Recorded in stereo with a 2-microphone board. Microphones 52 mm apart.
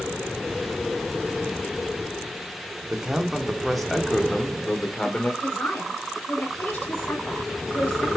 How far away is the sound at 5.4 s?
About 4.5 m.